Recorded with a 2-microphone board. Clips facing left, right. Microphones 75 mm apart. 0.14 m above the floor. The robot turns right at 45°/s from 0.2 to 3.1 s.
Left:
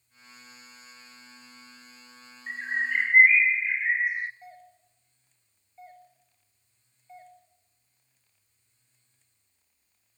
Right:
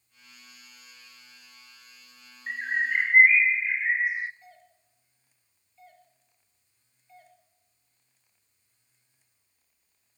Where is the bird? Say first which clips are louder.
Right 1 dB; 25° right (ahead or behind), 0.8 m; by 4.3 s centre (ahead or behind), 0.8 m.